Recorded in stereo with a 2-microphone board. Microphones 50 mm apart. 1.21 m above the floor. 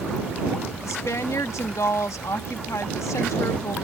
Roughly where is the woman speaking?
Left.